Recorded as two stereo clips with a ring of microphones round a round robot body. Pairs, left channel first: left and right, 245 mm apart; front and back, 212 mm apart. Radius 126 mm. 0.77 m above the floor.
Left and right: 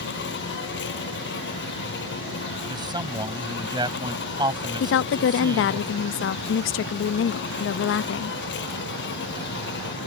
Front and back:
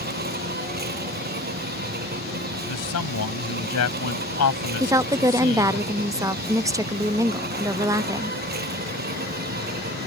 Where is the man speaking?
15° right.